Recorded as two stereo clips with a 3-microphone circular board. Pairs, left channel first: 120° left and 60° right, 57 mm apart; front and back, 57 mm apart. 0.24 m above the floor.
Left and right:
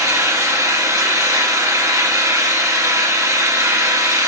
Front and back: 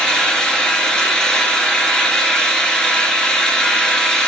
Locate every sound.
0.0 s an engine running: 75° right, 1.3 m